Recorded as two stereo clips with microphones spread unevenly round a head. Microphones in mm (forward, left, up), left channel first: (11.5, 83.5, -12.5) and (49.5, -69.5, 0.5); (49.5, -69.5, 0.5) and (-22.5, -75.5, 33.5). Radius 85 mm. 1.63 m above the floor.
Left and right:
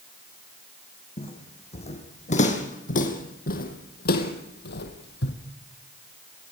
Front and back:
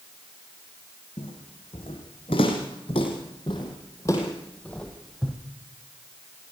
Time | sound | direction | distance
1.2 | footsteps | 50° left | 5.5 m